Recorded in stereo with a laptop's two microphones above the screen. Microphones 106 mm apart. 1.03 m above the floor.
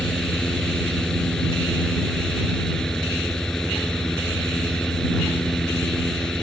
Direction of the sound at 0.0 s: 5° left (ahead or behind).